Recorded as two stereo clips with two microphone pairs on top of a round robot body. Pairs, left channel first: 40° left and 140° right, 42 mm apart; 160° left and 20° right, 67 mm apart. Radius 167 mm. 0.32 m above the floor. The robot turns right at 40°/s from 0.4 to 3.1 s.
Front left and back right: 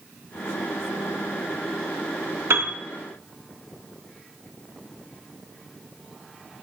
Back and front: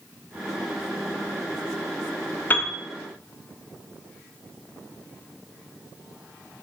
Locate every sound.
2.5 s a piano: 140° right, 0.8 m; by 2.8 s 130° right, 0.8 m